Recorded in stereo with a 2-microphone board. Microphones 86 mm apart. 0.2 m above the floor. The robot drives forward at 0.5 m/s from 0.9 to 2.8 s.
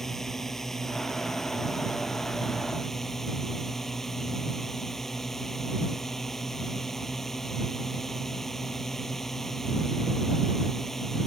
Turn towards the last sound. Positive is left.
turn(degrees=5)  # may be behind; listen again after turning